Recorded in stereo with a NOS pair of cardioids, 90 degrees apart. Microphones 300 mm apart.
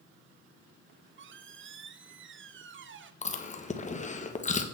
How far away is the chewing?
About 1.3 m.